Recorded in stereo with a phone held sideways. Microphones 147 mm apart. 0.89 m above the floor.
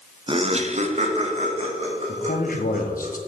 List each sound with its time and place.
0.3 s laughter: 35° right (ahead or behind), 0.7 m; by 3.1 s 45° right (ahead or behind), 5 m
2.1 s a man speaking: 70° left (ahead or behind), 1.2 m